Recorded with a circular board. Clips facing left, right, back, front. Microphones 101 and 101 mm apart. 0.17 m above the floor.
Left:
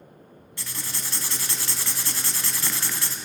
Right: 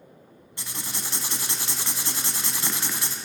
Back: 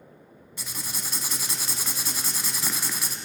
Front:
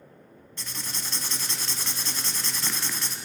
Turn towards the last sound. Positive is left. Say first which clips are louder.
# right 1 dB, back 1 dB
turn(degrees=-115)